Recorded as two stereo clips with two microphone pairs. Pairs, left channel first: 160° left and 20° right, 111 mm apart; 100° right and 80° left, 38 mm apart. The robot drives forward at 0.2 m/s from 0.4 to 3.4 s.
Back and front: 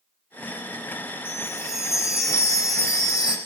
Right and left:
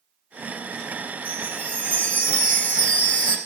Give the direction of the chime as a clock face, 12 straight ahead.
5 o'clock.